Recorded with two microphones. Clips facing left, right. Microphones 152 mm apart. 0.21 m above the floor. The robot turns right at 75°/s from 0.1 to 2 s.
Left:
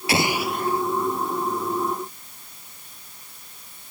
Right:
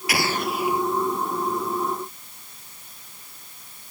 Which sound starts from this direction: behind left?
An explosion, at 0.1 s.